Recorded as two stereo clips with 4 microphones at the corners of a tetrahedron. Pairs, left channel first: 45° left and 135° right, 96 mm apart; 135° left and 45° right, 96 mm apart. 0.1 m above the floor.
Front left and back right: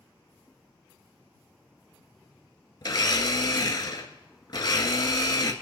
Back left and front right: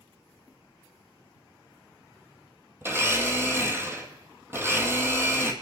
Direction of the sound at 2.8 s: 10° left.